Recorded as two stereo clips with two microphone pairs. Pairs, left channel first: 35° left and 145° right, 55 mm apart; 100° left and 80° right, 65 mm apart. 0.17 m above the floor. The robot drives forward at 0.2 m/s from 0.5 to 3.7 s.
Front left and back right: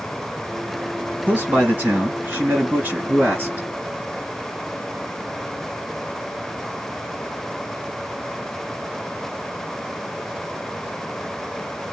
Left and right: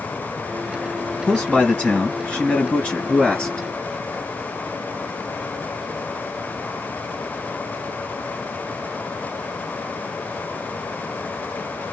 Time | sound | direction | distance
1.3 | a man speaking | 170° left | 2.5 m